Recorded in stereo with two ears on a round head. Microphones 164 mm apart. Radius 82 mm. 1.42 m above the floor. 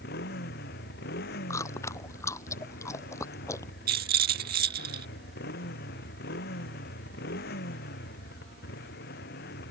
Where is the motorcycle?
55° left (ahead or behind).